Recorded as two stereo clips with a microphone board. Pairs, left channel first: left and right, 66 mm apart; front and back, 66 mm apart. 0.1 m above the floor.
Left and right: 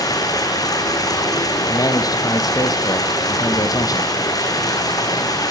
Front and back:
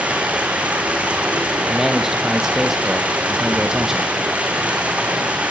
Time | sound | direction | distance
0.0 | running water | 110° left | 4.5 m
1.7 | a man speaking | 95° left | 4 m